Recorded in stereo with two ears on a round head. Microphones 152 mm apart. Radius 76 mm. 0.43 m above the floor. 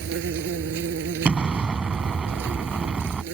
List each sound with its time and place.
0.0 s an insect: 75° right (ahead or behind)
1.2 s an explosion: 5° right (ahead or behind)